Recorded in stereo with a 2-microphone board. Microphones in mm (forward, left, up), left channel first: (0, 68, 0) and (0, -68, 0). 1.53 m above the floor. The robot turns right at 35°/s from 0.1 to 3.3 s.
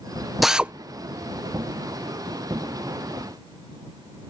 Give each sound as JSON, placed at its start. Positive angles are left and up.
{"t": 0.4, "sound": "a drill", "side_deg": 0}